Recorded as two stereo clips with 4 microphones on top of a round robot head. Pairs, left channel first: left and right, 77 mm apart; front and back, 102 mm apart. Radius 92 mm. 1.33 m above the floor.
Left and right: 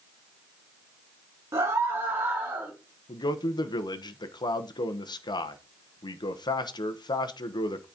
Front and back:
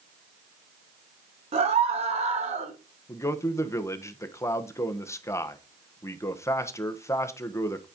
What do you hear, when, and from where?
1.5 s a scream: 150° right, 2.5 m; by 2.7 s 160° right, 3 m
3.1 s a man speaking: 65° left, 1.3 m